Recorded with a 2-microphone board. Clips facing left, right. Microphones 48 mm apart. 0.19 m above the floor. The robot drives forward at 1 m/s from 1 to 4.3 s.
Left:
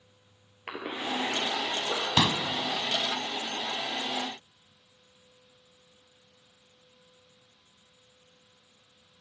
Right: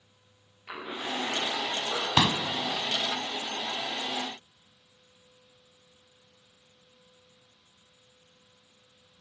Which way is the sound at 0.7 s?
60° left (ahead or behind).